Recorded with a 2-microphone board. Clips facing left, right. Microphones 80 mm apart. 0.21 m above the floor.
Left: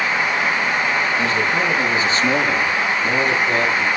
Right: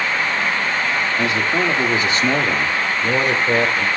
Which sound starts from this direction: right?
A man speaking, at 1.2 s.